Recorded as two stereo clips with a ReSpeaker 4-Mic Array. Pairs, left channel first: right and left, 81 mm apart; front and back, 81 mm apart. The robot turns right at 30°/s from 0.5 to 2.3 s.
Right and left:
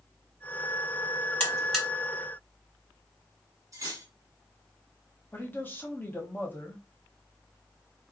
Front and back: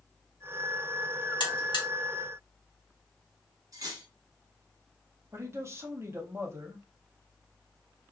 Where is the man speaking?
145° right, 0.9 m.